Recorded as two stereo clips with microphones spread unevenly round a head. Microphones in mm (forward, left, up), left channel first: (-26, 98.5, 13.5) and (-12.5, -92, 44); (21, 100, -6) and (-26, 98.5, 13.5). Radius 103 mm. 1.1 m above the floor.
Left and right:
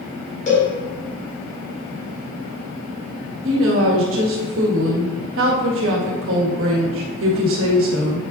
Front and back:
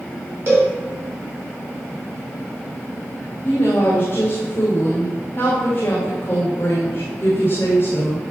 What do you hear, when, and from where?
0.5 s a cowbell: 145° left, 3.5 m
3.4 s a woman speaking: 60° right, 1.9 m